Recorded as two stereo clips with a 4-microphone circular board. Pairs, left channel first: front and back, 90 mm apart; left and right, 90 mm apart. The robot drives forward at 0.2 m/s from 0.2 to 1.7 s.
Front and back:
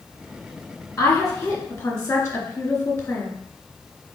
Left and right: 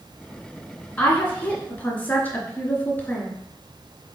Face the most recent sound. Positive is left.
turn(degrees=45)